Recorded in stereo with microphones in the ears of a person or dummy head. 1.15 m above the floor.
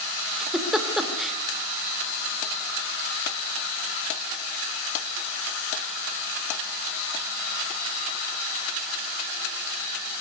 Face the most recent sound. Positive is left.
turn(degrees=-5)  # may be behind; listen again after turning